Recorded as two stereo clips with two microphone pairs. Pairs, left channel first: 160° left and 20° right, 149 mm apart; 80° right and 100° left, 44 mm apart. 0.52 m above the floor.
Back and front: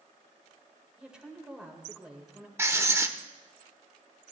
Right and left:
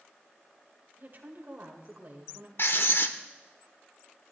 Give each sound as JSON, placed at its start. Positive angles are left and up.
{"t": 1.0, "sound": "a woman speaking", "azimuth_deg": 60, "distance_m": 2.5}
{"t": 2.6, "sound": "writing", "azimuth_deg": -90, "distance_m": 0.8}